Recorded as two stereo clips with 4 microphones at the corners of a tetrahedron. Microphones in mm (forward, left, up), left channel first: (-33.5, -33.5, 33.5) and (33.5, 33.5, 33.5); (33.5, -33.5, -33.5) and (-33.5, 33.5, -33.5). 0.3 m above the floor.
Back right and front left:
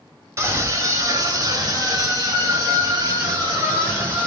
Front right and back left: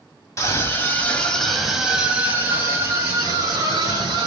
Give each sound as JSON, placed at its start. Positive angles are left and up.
{"t": 0.4, "sound": "a scream", "azimuth_deg": -5, "distance_m": 1.3}